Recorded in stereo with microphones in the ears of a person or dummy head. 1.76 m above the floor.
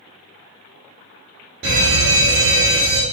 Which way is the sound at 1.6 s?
55° right (ahead or behind).